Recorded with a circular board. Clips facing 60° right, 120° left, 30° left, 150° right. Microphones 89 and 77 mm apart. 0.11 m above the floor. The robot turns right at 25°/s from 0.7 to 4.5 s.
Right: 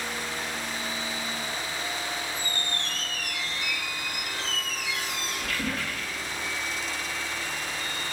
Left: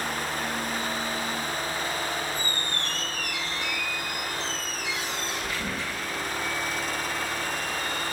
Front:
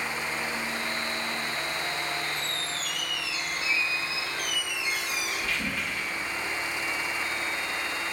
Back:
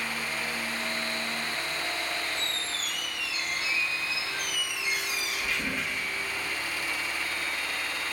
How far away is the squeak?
About 6 m.